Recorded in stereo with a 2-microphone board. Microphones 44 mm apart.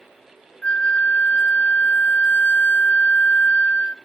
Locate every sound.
0.6 s a flute: 30° left (ahead or behind), 0.5 m